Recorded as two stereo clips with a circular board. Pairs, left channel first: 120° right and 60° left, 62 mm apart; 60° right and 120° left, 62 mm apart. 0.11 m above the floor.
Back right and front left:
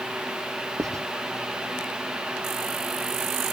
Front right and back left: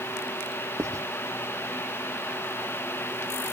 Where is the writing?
85° left.